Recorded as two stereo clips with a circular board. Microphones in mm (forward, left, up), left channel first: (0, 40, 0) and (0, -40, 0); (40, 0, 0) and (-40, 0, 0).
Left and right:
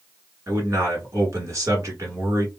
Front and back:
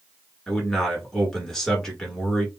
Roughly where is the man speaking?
Right.